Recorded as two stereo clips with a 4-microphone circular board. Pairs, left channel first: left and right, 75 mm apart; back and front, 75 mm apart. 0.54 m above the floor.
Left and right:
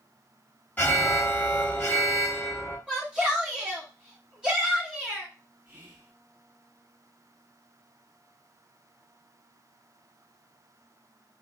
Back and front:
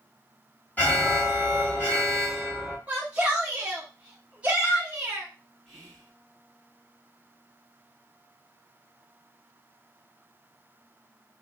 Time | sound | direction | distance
0.8 | an alarm | 140° left | 1.3 m
2.9 | a shout | 40° right | 0.8 m
5.7 | whispering | 95° right | 1.4 m